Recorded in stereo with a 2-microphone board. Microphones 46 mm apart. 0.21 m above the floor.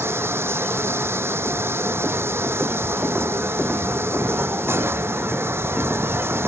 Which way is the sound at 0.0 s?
65° right (ahead or behind).